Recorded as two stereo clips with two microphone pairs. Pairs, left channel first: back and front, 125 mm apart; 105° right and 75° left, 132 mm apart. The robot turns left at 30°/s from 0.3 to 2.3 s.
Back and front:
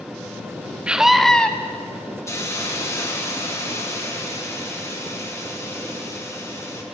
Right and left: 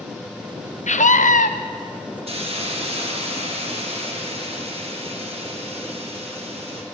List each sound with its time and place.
0.9 s a scream: 80° right, 0.7 m; by 1.5 s 100° right, 0.7 m
2.3 s a hiss: 115° left, 1.3 m; by 6.8 s 110° left, 1.3 m